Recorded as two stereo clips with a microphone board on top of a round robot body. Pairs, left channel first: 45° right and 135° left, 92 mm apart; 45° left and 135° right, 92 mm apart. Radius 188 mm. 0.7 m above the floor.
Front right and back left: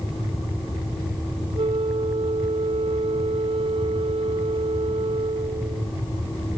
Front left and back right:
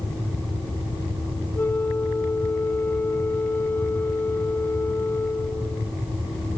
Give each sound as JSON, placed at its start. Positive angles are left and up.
{"t": 1.6, "sound": "a flute", "azimuth_deg": 115}